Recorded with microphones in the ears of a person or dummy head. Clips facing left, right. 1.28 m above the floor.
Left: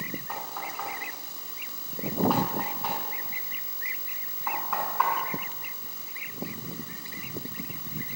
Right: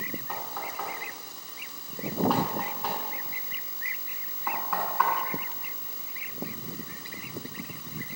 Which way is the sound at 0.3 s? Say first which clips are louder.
Even; centre (ahead or behind).